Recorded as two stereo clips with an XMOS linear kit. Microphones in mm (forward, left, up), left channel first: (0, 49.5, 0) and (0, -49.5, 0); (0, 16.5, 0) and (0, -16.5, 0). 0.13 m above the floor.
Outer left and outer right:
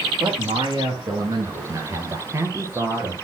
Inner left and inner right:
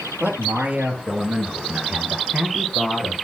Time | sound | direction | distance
0.2 | a man speaking | 55° right (ahead or behind) | 3 m